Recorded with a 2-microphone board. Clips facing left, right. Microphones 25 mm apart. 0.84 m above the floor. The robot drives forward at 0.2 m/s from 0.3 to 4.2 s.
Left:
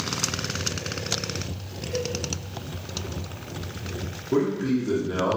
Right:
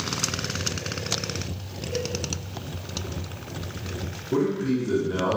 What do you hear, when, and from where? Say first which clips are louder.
1.9 s a cowbell: left 1 dB; 65° left (ahead or behind), 1.6 m
4.3 s a man speaking: left 1 dB; 15° left (ahead or behind), 0.7 m